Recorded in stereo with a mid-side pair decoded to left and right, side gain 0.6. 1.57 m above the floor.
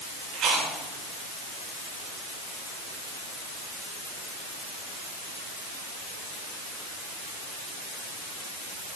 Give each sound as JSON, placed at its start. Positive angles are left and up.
{"t": 0.3, "sound": "chewing", "azimuth_deg": -55, "distance_m": 9.5}